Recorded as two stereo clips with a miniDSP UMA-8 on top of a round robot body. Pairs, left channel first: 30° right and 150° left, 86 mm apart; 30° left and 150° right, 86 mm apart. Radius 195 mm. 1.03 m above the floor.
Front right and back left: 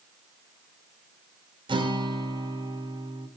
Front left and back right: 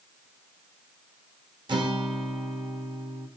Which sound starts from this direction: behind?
A guitar, at 1.7 s.